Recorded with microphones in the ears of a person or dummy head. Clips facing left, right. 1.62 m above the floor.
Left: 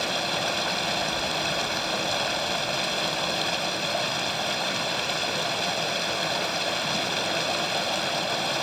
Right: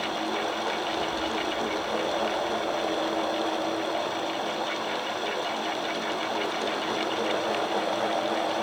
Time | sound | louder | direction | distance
0.0 | running water | even | 40° left (ahead or behind) | ?